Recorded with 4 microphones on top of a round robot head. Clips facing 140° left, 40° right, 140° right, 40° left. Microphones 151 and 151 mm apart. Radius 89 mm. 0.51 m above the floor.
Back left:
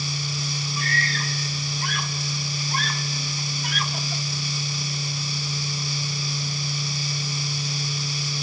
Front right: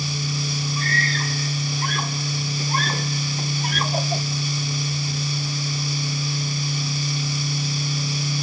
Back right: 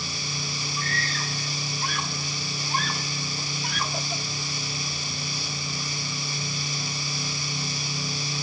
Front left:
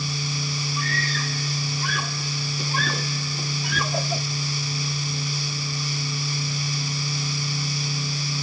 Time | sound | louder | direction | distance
0.8 | a scream | front right 1 dB, front left 1 dB | 20° left | ?